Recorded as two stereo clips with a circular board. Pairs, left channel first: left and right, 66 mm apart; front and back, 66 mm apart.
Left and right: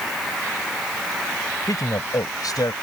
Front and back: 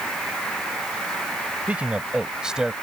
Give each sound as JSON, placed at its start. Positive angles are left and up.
{"t": 1.7, "sound": "a man speaking", "azimuth_deg": 110}